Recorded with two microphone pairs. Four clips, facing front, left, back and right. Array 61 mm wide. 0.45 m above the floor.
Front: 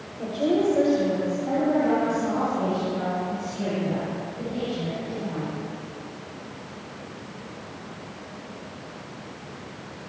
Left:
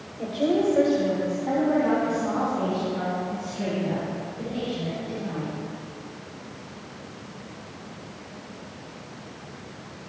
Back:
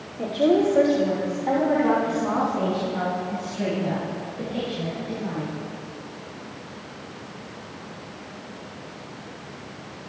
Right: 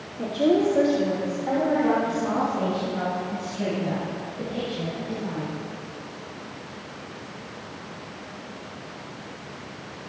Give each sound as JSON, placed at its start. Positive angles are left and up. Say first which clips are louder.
{"t": 0.2, "sound": "a woman speaking", "louder": "right 2 dB, back 3 dB", "azimuth_deg": 175, "distance_m": 1.7}